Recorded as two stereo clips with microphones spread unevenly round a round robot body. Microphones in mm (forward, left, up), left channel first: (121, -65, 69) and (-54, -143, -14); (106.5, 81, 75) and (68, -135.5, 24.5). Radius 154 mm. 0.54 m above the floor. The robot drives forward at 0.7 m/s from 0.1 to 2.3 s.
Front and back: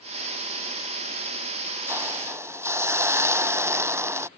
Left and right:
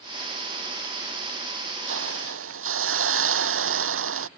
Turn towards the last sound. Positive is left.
turn(degrees=-80)